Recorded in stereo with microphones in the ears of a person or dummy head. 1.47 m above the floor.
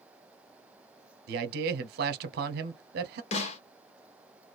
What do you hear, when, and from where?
1.3 s a man speaking: 60° right (ahead or behind), 0.7 m
3.3 s a snare drum: 35° left (ahead or behind), 0.9 m